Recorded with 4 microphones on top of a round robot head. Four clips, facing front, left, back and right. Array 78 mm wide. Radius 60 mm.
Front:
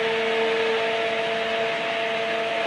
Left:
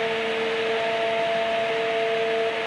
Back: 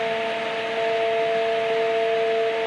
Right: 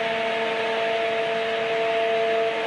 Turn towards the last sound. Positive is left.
No sound to turn to.